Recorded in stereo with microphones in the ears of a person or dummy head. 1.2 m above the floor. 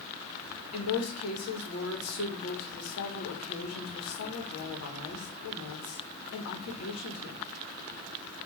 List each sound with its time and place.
0.7 s a woman speaking: 75° left (ahead or behind), 1.5 m